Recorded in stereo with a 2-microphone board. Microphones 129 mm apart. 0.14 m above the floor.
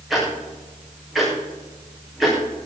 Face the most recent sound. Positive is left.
turn(degrees=0)  # may be behind; listen again after turning